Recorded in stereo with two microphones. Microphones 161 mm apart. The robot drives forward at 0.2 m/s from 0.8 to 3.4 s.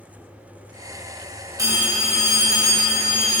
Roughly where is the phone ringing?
Right.